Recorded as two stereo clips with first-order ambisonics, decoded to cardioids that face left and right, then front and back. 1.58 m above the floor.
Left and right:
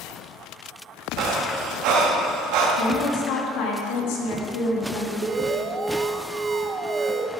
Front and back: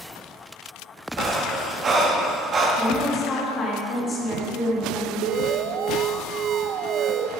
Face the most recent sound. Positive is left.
turn(degrees=-155)